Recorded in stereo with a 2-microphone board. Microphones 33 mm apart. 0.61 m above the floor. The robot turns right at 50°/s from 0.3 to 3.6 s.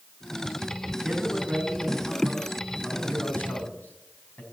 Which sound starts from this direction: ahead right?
A man speaking, at 1.0 s.